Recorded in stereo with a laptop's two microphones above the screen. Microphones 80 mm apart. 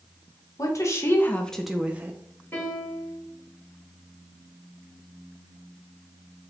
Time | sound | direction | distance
0.6 | a woman speaking | 45° left (ahead or behind) | 0.7 m
2.5 | a piano | 25° left (ahead or behind) | 2 m